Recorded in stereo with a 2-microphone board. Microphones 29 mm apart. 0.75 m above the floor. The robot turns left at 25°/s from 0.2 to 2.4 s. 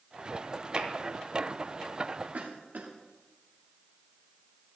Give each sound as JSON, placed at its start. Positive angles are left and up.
{"t": 0.8, "sound": "tapping", "side_deg": -50, "distance_m": 1.9}
{"t": 2.3, "sound": "a cough", "side_deg": -65, "distance_m": 1.2}